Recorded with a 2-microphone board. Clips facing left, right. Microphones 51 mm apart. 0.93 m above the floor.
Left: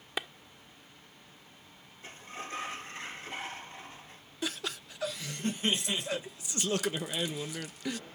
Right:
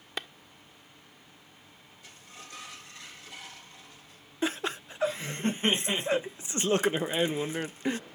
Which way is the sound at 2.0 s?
40° left (ahead or behind).